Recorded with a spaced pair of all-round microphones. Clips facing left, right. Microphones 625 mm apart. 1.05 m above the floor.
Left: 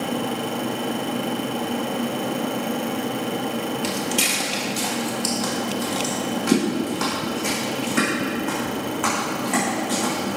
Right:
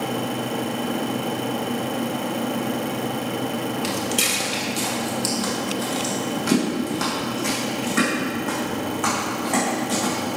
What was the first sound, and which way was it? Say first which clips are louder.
Footsteps: even; 15° left (ahead or behind).